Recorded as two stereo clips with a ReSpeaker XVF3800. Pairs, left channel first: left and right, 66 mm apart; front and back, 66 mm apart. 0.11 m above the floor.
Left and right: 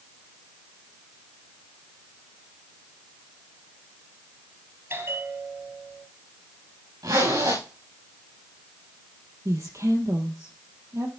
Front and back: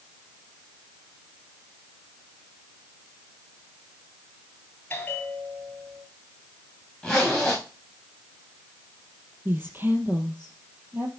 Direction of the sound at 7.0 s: 80° right.